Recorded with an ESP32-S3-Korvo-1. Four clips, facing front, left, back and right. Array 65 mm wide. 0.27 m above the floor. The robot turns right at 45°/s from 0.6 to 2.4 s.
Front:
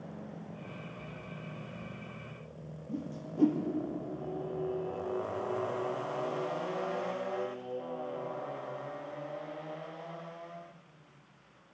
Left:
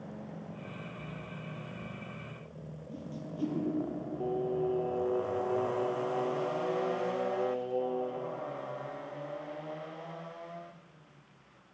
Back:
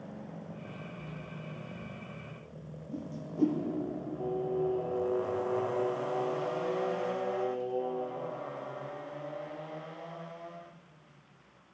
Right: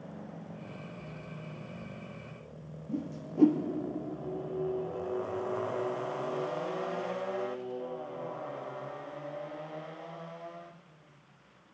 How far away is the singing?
About 2.5 m.